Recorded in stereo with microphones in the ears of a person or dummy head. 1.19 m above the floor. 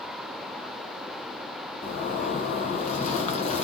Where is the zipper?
40° left (ahead or behind), 0.7 m.